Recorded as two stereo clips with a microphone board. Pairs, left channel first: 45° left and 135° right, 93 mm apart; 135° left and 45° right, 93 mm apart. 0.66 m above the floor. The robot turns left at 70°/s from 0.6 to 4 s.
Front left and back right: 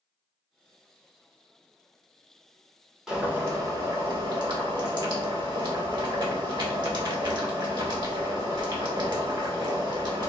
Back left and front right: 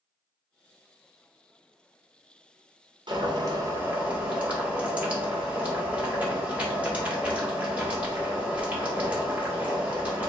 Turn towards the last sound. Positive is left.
turn(degrees=-120)